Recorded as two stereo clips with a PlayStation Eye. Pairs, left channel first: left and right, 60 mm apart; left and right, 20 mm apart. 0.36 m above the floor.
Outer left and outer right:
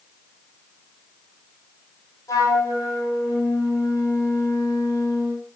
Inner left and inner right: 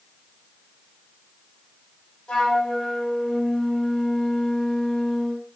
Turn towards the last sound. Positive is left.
turn(degrees=70)  # may be behind; listen again after turning